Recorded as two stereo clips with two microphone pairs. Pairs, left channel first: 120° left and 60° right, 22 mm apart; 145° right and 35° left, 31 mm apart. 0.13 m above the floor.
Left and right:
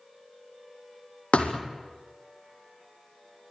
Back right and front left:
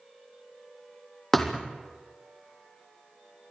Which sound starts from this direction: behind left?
A thud, at 1.3 s.